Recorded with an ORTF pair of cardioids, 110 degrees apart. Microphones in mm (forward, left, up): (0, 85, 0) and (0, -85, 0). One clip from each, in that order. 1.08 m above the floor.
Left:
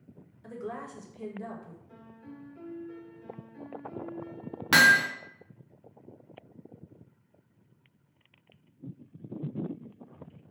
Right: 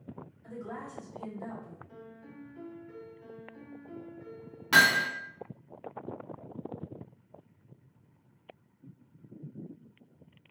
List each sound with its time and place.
0.4 s a woman speaking: 45° left, 0.9 m
1.9 s a piano: 10° left, 1.1 m
4.7 s hammering: 30° left, 0.5 m